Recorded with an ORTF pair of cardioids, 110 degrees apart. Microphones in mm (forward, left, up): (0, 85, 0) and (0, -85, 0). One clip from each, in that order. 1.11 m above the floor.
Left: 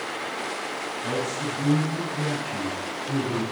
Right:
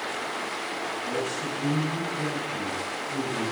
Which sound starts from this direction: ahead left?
A man speaking, at 1.0 s.